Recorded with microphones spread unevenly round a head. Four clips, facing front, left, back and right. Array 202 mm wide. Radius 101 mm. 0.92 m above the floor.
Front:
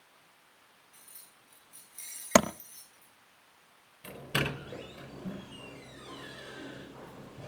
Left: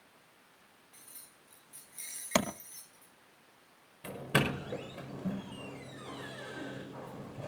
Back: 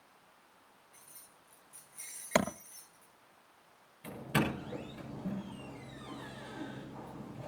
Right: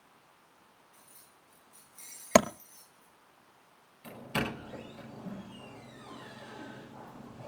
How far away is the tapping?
About 1.5 m.